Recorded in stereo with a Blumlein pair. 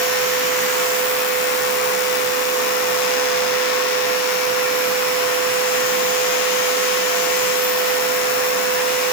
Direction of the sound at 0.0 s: 50° left.